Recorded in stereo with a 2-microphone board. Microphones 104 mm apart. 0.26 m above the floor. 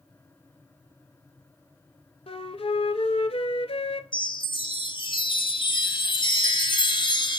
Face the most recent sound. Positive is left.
turn(degrees=50)  # may be behind; listen again after turning